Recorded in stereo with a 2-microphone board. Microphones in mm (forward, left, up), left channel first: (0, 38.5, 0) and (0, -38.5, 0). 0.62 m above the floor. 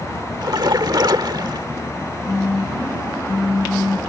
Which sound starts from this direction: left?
A phone buzzing, at 2.3 s.